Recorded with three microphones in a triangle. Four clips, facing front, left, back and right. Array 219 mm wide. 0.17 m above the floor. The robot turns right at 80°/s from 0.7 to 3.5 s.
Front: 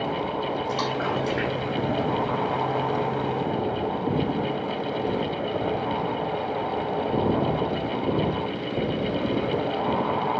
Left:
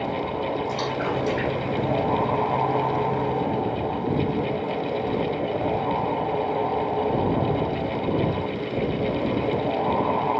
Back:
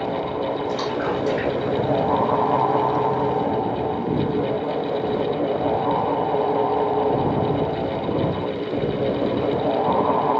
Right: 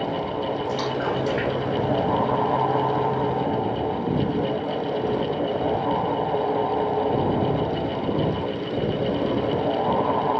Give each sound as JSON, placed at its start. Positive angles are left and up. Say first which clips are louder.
{"t": 0.7, "sound": "a splash", "louder": "right 1 dB, back 3 dB", "azimuth_deg": -155, "distance_m": 6.0}